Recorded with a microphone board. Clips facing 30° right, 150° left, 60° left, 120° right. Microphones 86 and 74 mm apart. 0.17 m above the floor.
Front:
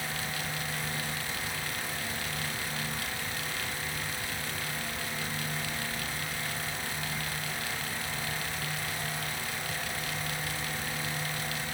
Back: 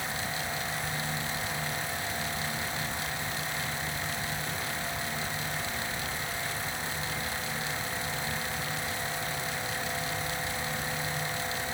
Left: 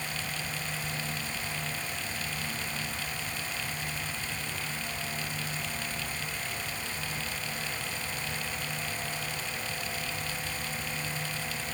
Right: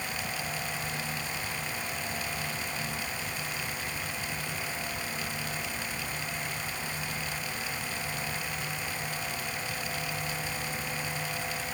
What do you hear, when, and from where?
Only background noise.